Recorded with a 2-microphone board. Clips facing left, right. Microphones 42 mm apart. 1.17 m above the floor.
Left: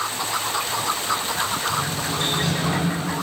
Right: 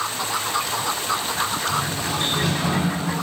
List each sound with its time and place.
1.7 s a sliding door: 20° right (ahead or behind), 3 m